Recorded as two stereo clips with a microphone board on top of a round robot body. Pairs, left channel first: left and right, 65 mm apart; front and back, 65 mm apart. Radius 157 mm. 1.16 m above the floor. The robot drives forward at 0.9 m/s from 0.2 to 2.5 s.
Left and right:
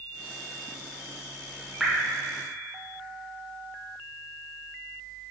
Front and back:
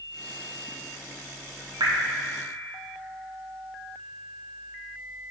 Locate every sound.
1.8 s dripping: 175° right, 1.1 m